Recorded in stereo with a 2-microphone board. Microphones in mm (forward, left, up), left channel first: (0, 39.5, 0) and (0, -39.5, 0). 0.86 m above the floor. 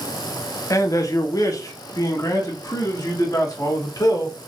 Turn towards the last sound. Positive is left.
turn(degrees=50)  # may be behind; listen again after turning